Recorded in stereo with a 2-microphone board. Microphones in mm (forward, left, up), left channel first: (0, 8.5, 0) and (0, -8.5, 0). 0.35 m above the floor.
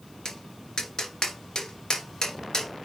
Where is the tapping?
40° left (ahead or behind), 1.9 m.